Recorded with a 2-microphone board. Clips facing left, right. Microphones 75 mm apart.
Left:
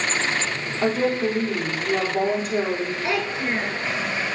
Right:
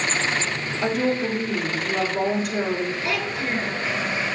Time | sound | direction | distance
0.8 | a woman speaking | 35° left (ahead or behind) | 3 m
3.0 | a child speaking | 30° left (ahead or behind) | 0.8 m